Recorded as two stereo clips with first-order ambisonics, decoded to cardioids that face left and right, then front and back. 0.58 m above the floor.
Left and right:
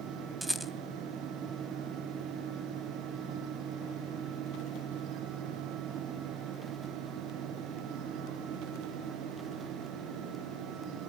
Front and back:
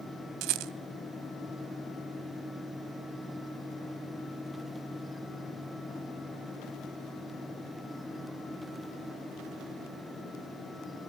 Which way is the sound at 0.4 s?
170° right.